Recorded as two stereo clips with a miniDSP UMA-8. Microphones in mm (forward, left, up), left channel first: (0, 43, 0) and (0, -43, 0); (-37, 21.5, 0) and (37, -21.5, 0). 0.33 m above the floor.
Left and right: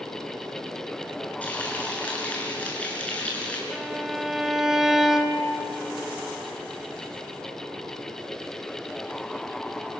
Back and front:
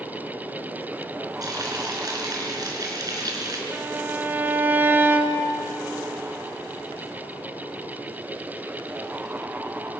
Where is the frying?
15° left, 5 m.